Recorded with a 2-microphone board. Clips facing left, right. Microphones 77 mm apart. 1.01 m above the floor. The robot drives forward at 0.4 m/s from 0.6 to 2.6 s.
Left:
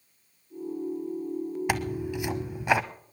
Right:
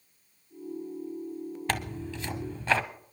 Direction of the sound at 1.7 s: 10° left (ahead or behind).